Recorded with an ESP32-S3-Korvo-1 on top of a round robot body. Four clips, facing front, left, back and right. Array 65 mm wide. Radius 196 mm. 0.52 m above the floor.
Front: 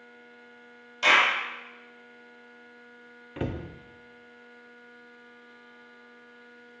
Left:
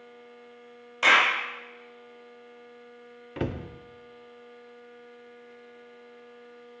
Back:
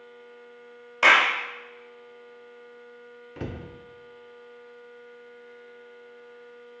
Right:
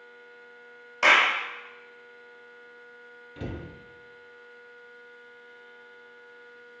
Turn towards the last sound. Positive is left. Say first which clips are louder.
# left 6 dB, front 3 dB
turn(degrees=70)